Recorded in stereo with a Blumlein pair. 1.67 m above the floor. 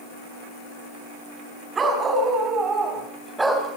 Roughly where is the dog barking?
Ahead.